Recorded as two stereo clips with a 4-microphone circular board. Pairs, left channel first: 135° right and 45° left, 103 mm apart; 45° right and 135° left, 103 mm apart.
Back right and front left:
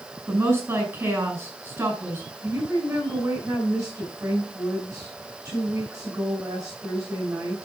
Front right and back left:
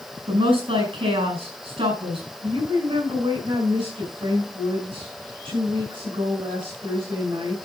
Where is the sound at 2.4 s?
120° left, 4.5 m.